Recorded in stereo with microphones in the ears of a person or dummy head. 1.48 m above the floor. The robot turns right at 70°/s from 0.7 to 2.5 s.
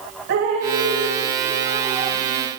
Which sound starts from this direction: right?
Dripping, at 0.3 s.